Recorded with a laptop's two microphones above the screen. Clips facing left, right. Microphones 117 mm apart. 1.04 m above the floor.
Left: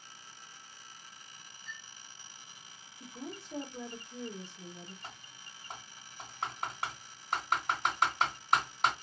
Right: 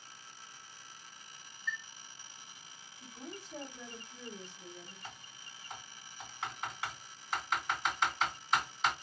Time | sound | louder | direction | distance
1.7 | a chime | right 9 dB | 75° left (ahead or behind) | 1.7 m
3.0 | a woman speaking | left 3 dB | 75° left (ahead or behind) | 1.4 m
5.0 | typing on a keyboard | left 1 dB | 60° left (ahead or behind) | 1.9 m